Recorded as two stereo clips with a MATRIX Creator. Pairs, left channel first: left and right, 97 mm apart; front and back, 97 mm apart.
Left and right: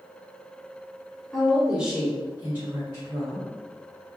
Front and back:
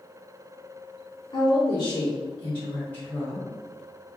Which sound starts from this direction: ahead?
A woman speaking, at 1.3 s.